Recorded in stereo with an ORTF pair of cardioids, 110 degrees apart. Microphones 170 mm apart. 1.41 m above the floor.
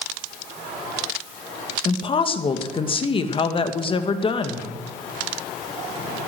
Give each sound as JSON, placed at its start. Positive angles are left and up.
{"t": 1.9, "sound": "a woman speaking", "azimuth_deg": 30, "distance_m": 2.0}